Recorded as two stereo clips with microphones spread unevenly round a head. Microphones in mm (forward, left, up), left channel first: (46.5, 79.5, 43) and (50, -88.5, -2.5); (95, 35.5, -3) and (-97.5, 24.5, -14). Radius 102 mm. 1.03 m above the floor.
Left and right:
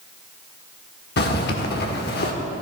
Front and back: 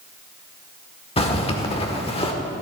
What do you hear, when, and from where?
1.2 s a zipper: 65° left, 1.6 m